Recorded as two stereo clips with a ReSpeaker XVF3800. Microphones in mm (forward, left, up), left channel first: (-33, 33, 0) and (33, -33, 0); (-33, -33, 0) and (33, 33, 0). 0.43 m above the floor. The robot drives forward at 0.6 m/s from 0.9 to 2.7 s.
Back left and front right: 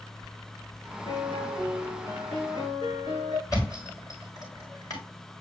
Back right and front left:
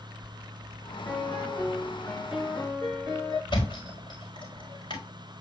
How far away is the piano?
About 5 m.